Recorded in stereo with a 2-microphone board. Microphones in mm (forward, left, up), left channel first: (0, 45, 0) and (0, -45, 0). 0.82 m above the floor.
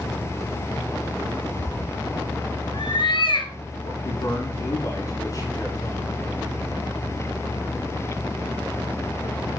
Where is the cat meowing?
60° left (ahead or behind), 3.5 m.